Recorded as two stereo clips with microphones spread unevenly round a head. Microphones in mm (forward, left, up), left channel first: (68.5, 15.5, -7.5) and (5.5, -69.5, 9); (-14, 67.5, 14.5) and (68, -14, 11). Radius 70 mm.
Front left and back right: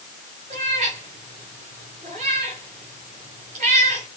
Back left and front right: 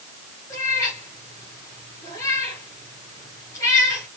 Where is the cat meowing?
155° right, 5 m.